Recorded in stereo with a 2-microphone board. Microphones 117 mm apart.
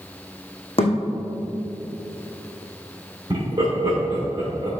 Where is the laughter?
40° right (ahead or behind), 2 m.